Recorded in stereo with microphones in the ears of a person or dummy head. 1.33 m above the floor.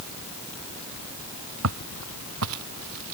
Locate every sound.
1.6 s footsteps: 75° right (ahead or behind); by 3.1 s 80° right